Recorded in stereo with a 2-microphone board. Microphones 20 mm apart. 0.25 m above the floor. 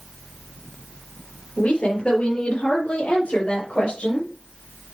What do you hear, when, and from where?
1.6 s a woman speaking: 70° left (ahead or behind), 5.5 m; by 4.3 s 60° left (ahead or behind), 5.5 m